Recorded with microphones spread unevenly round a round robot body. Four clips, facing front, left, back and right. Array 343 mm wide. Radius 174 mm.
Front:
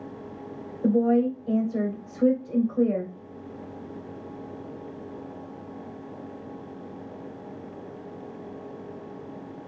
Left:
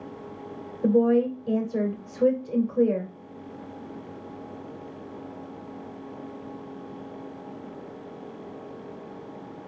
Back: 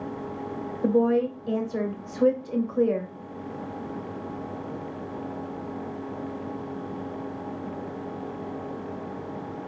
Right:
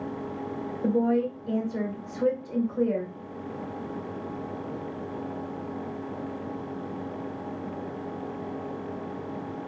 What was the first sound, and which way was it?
A woman speaking, 110° left.